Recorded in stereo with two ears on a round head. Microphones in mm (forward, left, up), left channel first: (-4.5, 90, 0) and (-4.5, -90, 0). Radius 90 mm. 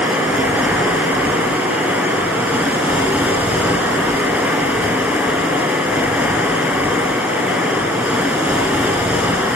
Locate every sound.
0.0 s running water: 5° right (ahead or behind), 5.5 m